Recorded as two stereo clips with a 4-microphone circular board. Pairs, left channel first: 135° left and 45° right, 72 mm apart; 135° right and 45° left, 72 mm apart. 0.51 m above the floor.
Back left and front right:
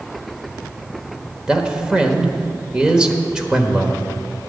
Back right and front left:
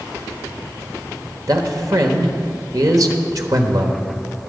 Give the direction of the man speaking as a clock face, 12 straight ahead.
11 o'clock.